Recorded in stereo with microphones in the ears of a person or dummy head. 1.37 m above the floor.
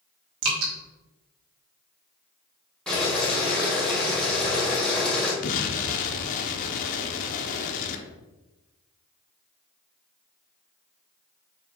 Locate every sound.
0.4 s dripping: 80° right, 3 m
2.9 s boiling: centre (ahead or behind), 1.6 m
5.4 s an explosion: 45° left (ahead or behind), 1.0 m